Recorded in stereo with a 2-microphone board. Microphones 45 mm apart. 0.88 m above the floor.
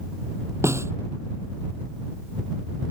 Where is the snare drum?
85° right.